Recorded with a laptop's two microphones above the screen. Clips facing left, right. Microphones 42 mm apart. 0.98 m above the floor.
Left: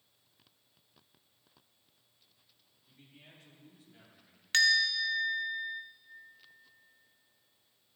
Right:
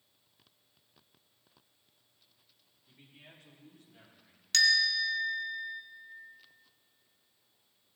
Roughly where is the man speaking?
Centre.